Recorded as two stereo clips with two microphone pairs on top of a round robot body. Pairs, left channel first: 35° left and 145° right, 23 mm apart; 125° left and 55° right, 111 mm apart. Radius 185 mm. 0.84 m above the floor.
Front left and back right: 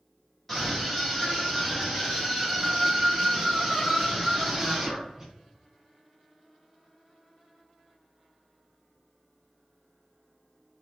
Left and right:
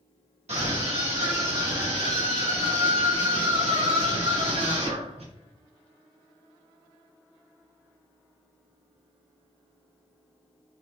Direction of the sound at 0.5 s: 40° right.